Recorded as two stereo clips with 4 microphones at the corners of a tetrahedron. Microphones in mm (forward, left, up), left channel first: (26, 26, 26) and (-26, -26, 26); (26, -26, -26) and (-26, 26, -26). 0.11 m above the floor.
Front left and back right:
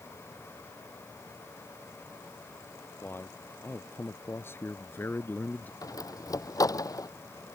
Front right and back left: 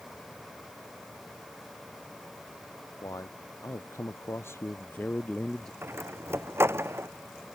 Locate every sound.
3.0 s a man speaking: 10° right; by 5.7 s 30° left
5.8 s a door slam: 80° left